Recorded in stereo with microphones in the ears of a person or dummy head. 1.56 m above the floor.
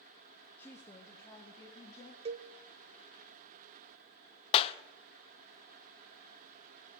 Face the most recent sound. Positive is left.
turn(degrees=35)  # may be behind; listen again after turning